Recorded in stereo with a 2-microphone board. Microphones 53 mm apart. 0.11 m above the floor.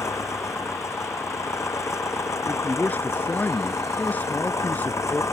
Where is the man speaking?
35° left (ahead or behind).